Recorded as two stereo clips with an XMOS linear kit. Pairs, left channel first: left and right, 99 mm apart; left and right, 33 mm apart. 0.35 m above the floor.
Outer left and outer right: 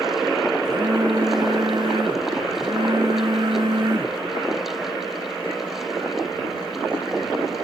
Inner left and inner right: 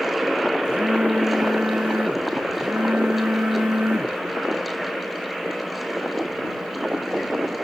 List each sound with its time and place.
0.7 s a phone buzzing: 50° right (ahead or behind)